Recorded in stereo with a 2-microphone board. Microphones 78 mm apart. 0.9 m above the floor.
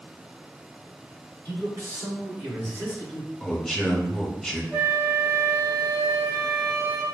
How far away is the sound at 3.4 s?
About 1.5 m.